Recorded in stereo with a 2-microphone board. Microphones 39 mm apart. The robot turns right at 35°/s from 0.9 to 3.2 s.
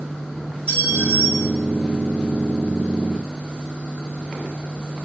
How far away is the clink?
About 1.9 m.